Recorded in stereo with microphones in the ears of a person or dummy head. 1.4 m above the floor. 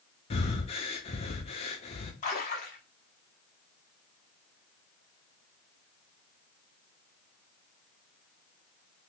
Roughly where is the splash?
Left.